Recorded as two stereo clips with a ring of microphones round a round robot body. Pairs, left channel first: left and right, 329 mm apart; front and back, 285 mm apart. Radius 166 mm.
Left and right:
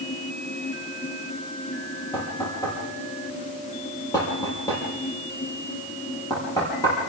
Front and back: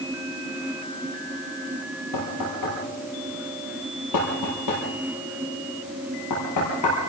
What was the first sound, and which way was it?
Knocking, 10° left.